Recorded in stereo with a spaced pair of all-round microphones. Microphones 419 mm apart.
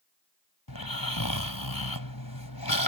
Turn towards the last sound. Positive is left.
turn(degrees=55)  # may be behind; listen again after turning